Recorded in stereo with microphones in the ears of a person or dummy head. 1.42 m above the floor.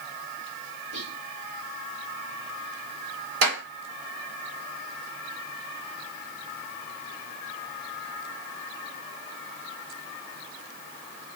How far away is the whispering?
About 2.5 m.